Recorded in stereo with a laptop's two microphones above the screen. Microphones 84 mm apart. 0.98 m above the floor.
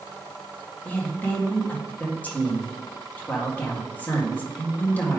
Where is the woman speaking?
20° left (ahead or behind), 1.6 m.